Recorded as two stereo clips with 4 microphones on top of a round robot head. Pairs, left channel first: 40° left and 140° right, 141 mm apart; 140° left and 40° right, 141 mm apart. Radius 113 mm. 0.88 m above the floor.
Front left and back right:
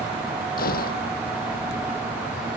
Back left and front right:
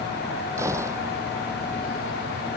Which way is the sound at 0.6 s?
30° left.